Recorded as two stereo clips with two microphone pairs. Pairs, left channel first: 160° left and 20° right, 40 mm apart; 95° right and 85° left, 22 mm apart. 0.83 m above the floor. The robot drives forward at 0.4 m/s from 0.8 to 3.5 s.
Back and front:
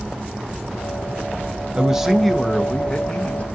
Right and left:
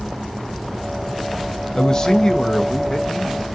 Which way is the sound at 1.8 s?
75° right.